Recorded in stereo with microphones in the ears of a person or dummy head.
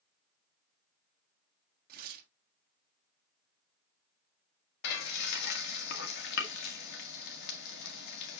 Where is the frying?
55° left (ahead or behind), 1.6 m.